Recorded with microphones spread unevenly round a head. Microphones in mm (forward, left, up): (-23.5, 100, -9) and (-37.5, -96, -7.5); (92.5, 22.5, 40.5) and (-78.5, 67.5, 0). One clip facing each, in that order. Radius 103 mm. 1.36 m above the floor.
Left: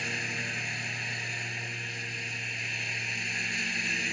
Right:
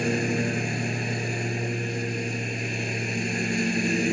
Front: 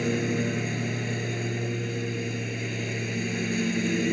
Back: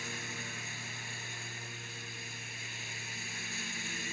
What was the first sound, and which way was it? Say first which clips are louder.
A lawn mower: right 15 dB, front 20 dB; 50° right.